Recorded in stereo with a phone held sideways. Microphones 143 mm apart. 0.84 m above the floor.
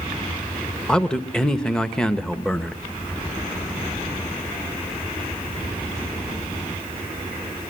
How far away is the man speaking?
About 1.0 m.